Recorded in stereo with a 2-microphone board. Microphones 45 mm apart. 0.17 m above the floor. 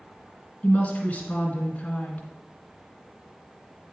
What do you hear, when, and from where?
0.6 s a woman speaking: 35° left (ahead or behind), 1.6 m